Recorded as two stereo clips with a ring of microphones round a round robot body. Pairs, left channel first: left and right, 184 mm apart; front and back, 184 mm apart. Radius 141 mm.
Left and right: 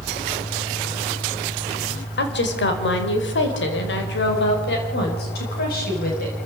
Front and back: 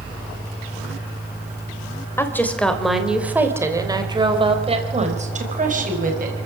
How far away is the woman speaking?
About 3.5 m.